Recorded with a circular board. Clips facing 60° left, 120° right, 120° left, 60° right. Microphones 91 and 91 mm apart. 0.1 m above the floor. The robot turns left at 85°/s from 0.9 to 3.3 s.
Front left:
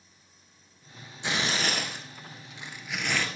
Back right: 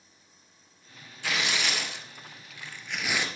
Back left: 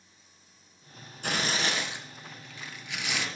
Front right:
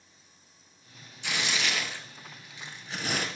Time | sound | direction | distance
1.2 | tearing paper | 120° left | 1.2 m